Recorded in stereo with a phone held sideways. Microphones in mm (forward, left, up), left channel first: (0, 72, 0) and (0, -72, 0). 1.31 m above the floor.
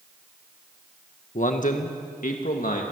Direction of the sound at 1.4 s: 65° left (ahead or behind).